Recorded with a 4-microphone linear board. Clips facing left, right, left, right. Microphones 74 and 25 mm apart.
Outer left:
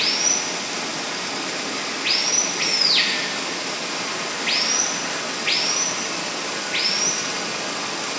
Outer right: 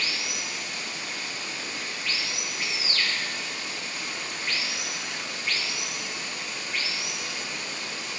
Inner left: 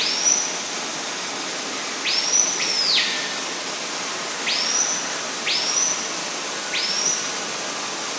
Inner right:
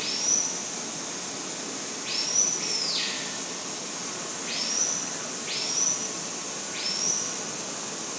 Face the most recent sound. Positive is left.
turn(degrees=85)